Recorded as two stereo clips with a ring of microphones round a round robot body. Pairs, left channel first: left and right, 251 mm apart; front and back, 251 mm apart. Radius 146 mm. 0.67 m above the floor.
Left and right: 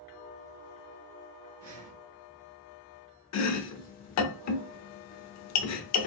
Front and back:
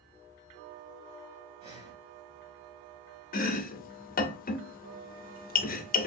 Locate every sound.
1.6 s breathing: 115° right, 1.7 m
3.3 s chopping: 60° left, 0.6 m